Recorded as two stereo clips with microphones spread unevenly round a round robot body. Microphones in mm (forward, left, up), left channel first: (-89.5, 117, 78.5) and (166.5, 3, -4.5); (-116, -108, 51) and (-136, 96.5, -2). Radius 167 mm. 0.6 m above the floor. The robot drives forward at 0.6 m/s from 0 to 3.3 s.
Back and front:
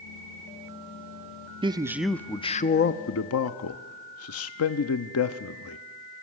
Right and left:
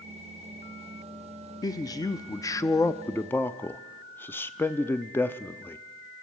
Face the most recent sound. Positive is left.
turn(degrees=180)